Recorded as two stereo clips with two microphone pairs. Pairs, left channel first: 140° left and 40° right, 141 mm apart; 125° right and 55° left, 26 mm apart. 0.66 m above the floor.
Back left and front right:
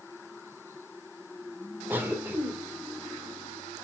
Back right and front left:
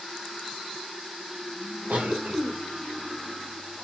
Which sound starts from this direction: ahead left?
A cough, at 1.9 s.